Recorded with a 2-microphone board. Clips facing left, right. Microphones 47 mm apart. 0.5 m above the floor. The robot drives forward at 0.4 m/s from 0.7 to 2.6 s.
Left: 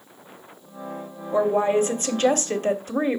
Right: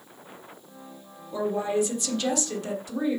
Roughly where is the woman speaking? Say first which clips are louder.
Left 6 dB; left.